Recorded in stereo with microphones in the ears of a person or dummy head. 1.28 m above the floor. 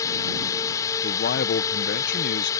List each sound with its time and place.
0.0 s a drone: 20° left (ahead or behind)
1.0 s a man speaking: 50° left (ahead or behind)